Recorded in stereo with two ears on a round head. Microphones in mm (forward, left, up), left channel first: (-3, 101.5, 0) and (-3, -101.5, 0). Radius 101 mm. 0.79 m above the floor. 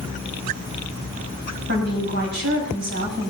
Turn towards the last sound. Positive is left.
turn(degrees=-50)  # may be behind; listen again after turning